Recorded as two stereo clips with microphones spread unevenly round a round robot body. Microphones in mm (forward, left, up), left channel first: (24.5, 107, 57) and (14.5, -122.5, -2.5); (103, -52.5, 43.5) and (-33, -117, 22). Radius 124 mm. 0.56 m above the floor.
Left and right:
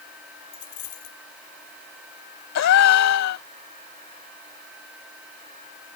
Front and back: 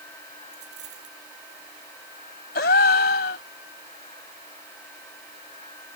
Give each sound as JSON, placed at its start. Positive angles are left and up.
{"t": 0.5, "sound": "a dropped coin", "azimuth_deg": 145}
{"t": 2.5, "sound": "a gasp", "azimuth_deg": 65}